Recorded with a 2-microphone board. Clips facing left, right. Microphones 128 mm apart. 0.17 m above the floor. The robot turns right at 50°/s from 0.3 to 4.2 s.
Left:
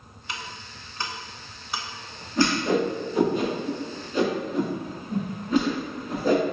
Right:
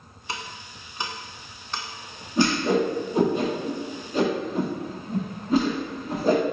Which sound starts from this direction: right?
Ticking, at 0.3 s.